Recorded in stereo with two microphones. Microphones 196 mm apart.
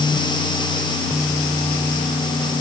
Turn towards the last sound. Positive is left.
No sound to turn to.